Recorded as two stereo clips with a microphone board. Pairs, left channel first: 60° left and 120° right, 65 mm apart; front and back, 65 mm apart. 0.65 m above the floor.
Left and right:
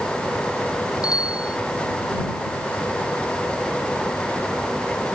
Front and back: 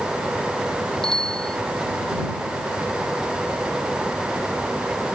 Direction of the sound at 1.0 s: 80° left.